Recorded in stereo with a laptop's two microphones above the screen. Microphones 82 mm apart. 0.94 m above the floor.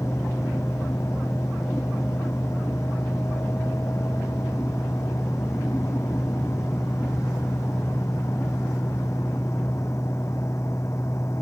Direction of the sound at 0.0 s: 40° left (ahead or behind).